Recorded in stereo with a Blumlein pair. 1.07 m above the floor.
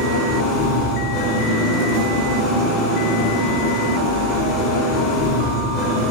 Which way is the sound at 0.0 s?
35° left.